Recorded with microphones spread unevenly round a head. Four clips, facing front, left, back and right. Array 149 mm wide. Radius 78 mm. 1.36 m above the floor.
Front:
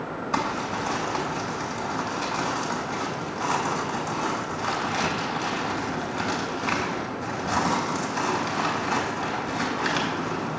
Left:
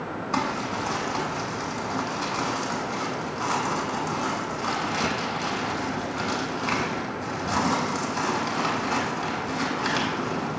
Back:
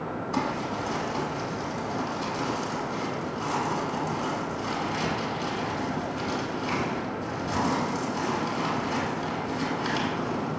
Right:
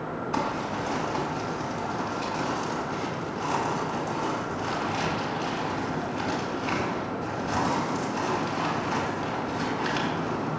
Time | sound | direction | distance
0.3 | crumpling | 35° left | 2.5 m